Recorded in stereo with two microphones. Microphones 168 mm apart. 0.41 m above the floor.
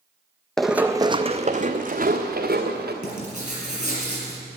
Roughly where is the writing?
Left.